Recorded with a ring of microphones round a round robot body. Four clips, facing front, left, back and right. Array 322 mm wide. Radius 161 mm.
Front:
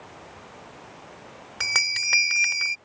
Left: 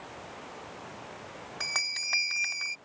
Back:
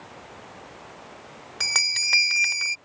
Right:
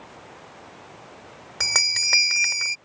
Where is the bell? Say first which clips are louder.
Right 10 dB, front 1 dB; 75° right.